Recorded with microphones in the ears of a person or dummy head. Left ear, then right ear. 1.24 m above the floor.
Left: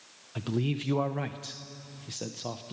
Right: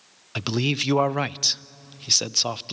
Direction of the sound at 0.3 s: 60° right (ahead or behind).